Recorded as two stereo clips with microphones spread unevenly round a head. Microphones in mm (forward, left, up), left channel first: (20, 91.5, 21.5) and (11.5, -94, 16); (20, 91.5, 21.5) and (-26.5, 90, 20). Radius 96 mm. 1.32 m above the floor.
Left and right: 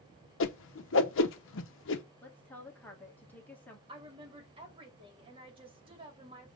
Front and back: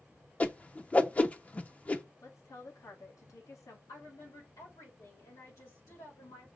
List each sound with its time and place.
0.4 s a whoosh: 65° left, 0.9 m
2.2 s a woman speaking: 5° left, 1.7 m
3.9 s a woman speaking: 30° right, 2.5 m